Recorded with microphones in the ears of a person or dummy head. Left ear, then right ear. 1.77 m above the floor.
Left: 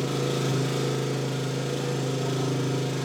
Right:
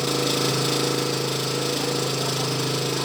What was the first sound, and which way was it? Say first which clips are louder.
An engine running: right 5 dB; 45° right (ahead or behind).